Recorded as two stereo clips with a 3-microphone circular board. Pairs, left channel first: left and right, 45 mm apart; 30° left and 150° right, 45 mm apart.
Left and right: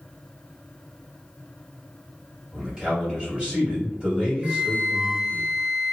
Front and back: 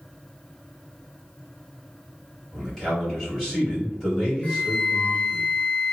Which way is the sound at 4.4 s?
25° right.